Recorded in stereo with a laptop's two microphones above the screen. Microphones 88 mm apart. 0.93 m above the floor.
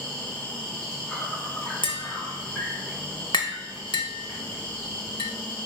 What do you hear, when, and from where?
0.0 s an insect: 15° left (ahead or behind), 1.3 m
1.8 s tapping: 70° left (ahead or behind), 0.6 m